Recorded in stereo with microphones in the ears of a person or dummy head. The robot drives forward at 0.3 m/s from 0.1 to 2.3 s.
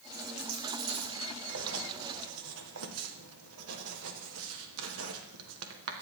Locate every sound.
0.1 s a dropped coin: 65° right (ahead or behind), 7.5 m
1.5 s writing: 75° right (ahead or behind), 1.7 m; by 6.0 s 80° right, 1.7 m